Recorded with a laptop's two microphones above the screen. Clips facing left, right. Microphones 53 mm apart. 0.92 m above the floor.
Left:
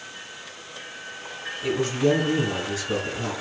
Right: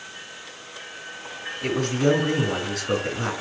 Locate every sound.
1.6 s a man speaking: 65° right (ahead or behind), 4.5 m